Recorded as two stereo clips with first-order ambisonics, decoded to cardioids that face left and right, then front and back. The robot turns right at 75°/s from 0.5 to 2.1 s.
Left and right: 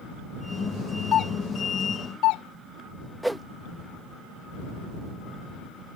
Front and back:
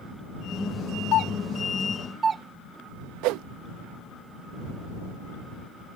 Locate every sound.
1.1 s a doorbell: 35° left; by 2.4 s 110° left
3.2 s a whoosh: 175° right